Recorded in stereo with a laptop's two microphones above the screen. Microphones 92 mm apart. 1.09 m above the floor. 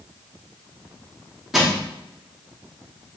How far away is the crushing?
About 3 m.